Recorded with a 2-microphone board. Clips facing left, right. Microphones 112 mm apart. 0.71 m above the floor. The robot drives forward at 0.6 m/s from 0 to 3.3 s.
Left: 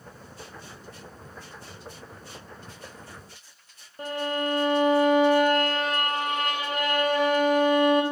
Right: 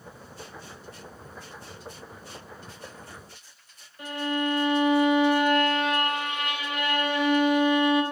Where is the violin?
40° left (ahead or behind), 0.7 m.